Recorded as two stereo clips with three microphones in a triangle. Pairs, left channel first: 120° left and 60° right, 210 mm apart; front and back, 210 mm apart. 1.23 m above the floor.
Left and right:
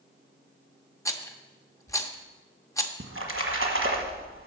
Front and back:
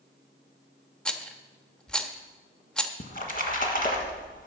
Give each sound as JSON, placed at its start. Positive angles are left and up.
{"t": 1.1, "sound": "a rattle", "azimuth_deg": 80, "distance_m": 0.6}
{"t": 3.0, "sound": "a splash", "azimuth_deg": -45, "distance_m": 1.3}